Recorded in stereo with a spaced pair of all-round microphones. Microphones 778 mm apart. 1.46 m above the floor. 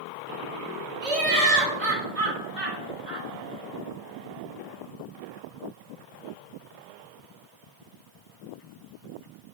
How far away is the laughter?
About 0.9 m.